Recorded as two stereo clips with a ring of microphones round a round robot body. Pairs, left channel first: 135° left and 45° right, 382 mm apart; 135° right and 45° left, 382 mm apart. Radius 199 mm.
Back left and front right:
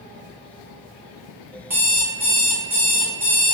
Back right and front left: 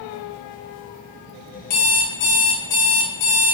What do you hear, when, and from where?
1.7 s an alarm clock: 130° right, 1.1 m